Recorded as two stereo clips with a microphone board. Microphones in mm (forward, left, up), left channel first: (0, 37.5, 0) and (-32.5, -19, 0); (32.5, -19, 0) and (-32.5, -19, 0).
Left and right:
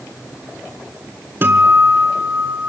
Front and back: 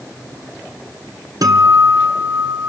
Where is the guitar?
175° right, 1.9 m.